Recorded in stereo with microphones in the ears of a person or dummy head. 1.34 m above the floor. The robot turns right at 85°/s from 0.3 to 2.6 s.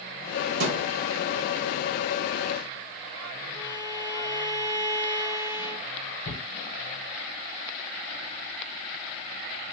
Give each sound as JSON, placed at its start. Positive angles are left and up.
{"t": 0.6, "sound": "a thud", "azimuth_deg": -90, "distance_m": 3.5}
{"t": 3.5, "sound": "a violin", "side_deg": 20, "distance_m": 2.5}
{"t": 6.2, "sound": "a shout", "side_deg": 80, "distance_m": 4.5}